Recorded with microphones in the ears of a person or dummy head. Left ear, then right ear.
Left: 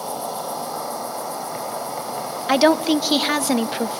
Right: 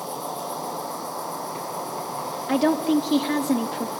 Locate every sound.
0.0 s an insect: 65° left (ahead or behind), 3.5 m
2.5 s a woman speaking: 45° left (ahead or behind), 0.6 m